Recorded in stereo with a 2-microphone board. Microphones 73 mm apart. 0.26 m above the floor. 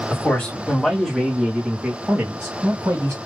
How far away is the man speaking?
About 1.7 m.